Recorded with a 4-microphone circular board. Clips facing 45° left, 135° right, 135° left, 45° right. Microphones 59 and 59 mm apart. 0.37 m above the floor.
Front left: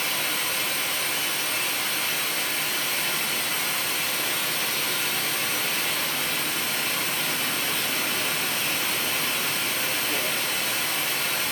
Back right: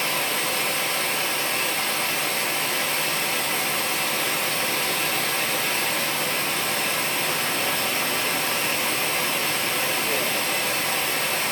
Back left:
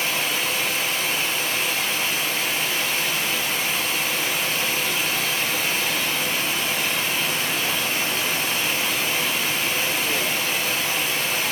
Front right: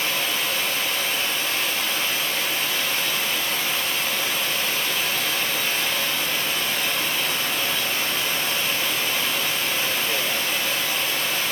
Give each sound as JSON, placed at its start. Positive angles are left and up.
{"t": 0.0, "sound": "running water", "azimuth_deg": -155, "distance_m": 1.1}